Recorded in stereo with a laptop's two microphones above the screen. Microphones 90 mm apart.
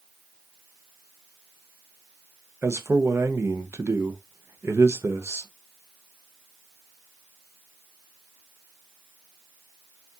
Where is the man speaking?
30° right (ahead or behind), 0.7 m.